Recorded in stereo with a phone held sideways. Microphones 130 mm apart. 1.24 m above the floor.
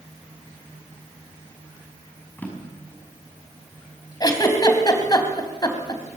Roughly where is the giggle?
Left.